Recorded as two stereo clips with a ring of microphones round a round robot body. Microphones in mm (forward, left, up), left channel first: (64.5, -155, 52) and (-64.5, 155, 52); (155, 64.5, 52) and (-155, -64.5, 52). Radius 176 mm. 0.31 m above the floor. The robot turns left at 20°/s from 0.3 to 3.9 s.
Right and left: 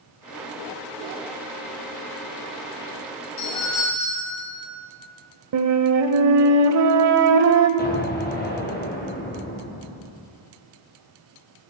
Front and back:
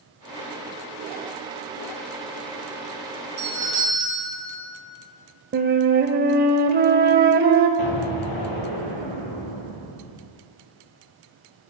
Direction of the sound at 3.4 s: 100° right.